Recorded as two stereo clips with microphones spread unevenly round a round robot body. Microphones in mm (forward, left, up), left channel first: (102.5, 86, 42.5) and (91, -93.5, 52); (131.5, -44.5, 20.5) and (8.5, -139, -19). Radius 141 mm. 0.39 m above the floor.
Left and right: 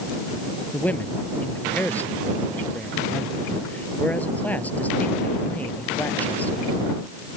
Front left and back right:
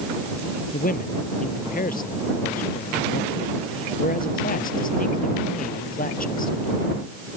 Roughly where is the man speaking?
Ahead.